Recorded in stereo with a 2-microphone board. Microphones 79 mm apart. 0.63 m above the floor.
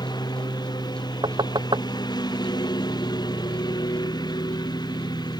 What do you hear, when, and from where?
0.0 s a lawn mower: 65° left (ahead or behind)
1.2 s knocking: 85° right